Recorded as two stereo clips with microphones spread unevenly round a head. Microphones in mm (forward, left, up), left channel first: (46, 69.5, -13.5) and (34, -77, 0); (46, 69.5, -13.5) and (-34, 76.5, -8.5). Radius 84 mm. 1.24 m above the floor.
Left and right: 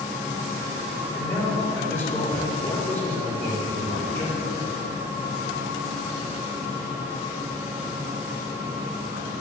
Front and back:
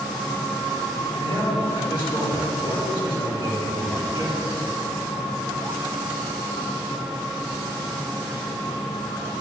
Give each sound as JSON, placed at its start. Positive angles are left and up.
{"t": 1.1, "sound": "a man speaking", "azimuth_deg": 10, "distance_m": 4.0}